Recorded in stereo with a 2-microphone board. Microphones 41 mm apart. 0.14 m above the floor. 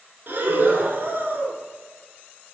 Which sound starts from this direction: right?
Breathing, at 0.3 s.